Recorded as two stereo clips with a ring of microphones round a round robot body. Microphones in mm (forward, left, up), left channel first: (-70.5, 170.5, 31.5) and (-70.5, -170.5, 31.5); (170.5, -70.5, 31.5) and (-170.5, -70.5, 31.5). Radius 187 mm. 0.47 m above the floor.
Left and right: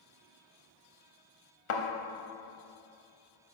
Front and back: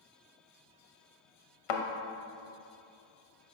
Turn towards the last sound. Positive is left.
turn(degrees=30)